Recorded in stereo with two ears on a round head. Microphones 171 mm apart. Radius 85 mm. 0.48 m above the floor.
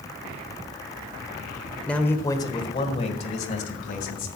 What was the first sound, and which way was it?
A man speaking, 5° left (ahead or behind).